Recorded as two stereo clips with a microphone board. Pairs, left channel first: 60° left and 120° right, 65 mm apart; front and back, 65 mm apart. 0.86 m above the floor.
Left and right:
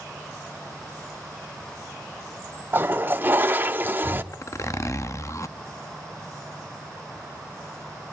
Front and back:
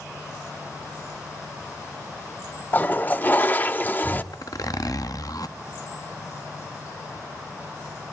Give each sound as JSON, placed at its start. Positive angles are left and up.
{"t": 2.7, "sound": "a toilet flushing", "azimuth_deg": -60, "distance_m": 0.8}
{"t": 4.3, "sound": "a zipper", "azimuth_deg": 20, "distance_m": 0.7}